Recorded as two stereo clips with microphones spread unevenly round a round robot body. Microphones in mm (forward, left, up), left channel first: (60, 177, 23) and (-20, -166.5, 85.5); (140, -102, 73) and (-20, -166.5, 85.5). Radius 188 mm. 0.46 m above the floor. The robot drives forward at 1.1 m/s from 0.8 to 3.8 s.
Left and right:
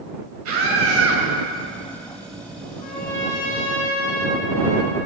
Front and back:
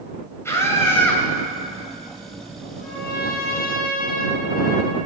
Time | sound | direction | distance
0.5 | a scream | 50° right | 3 m
2.8 | a trumpet | 15° left | 3 m